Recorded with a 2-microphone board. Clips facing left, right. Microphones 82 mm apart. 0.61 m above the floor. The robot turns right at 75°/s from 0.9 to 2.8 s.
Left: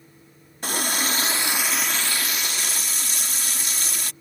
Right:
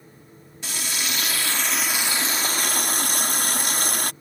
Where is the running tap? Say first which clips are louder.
Left 5 dB; 115° left; by 4.1 s 100° right.